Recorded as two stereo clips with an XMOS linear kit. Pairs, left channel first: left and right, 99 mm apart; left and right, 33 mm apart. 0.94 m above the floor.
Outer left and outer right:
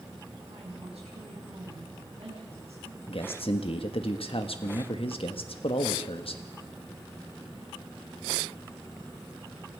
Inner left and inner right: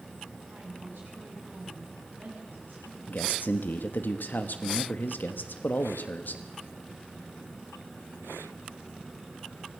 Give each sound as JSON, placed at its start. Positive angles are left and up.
{"t": 0.5, "sound": "a woman speaking", "side_deg": -80, "distance_m": 7.5}
{"t": 3.1, "sound": "a man speaking", "side_deg": 65, "distance_m": 1.4}